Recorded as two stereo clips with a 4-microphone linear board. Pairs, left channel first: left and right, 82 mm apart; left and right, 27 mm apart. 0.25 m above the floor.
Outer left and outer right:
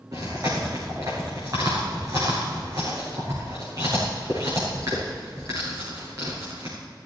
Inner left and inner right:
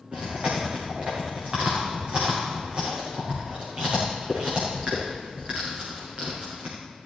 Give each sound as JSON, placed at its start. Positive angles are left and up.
{"t": 0.1, "sound": "chewing", "side_deg": -40, "distance_m": 5.0}